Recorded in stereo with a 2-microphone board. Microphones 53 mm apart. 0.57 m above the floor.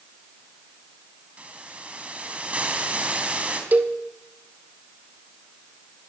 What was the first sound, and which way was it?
A hiss, 25° right (ahead or behind).